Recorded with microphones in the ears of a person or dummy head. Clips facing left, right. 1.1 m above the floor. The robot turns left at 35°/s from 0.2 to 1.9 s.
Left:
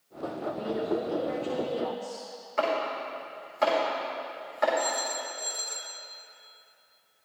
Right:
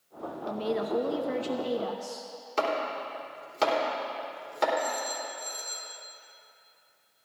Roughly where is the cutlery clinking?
I don't hear cutlery clinking.